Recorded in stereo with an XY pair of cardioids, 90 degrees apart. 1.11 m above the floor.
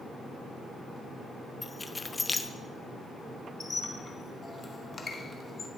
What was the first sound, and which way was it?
Keys jangling, 25° left.